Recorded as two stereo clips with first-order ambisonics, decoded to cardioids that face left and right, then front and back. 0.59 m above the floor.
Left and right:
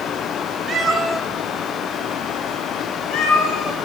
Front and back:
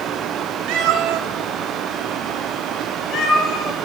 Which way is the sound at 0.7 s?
155° right.